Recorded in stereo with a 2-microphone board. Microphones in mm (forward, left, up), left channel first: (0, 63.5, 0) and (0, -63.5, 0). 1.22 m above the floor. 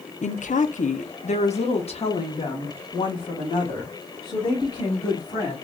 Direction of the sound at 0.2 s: 75° left (ahead or behind).